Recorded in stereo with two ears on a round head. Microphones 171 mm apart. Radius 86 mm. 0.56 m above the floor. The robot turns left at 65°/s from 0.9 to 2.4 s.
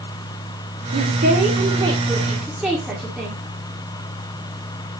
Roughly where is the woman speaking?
Right.